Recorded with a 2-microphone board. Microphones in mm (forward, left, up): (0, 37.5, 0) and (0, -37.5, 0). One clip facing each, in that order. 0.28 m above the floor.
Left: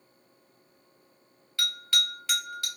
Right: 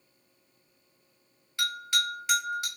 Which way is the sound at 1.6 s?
25° right (ahead or behind).